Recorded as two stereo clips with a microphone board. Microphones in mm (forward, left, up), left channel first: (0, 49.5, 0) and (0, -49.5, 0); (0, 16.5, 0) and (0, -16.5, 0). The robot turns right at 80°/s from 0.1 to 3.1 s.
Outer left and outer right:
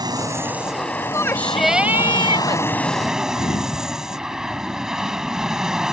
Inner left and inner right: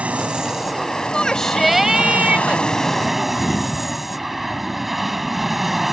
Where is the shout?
140° left; by 2.6 s 100° right.